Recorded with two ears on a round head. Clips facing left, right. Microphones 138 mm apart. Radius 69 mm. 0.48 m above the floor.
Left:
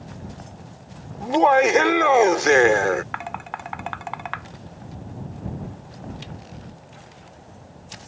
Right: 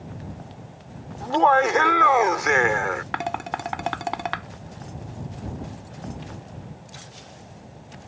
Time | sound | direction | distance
1.2 | laughter | 20° left (ahead or behind) | ?
3.1 | dishes clattering | 45° right (ahead or behind) | ?